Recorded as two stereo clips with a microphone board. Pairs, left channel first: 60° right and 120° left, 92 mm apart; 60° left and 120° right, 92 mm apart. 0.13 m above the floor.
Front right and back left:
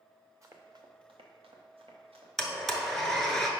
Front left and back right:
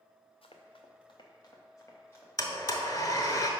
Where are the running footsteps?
60° left, 1.2 m; by 2.3 s 125° left, 2.5 m.